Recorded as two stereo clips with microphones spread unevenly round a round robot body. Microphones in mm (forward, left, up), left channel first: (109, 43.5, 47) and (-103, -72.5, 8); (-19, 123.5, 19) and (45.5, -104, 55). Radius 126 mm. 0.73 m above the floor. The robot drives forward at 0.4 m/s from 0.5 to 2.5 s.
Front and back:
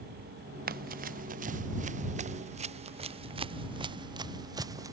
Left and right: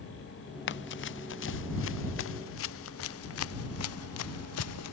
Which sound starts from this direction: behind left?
Running footsteps, at 0.7 s.